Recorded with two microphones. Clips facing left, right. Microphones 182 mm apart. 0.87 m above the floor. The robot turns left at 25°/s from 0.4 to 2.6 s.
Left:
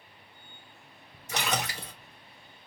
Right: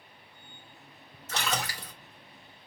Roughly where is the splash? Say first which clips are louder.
Left 1 dB; centre.